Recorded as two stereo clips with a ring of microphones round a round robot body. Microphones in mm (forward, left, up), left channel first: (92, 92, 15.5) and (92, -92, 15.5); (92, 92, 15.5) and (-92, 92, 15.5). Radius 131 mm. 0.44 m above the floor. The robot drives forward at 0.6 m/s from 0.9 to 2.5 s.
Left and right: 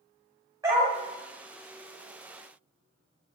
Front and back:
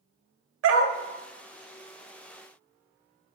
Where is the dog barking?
170° right, 0.7 m.